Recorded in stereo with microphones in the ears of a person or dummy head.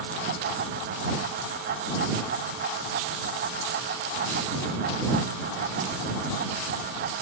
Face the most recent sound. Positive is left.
No sound to turn to.